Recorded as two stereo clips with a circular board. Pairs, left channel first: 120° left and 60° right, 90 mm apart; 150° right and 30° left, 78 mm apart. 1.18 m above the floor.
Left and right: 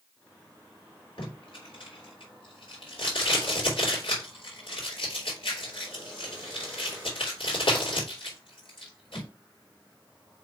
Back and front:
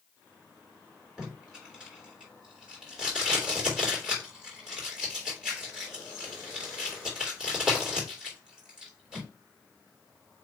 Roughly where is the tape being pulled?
Left.